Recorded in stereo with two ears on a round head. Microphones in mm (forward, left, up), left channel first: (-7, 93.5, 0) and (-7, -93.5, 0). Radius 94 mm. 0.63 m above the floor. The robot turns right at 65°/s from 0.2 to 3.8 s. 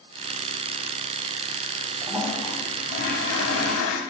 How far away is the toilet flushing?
About 1.4 m.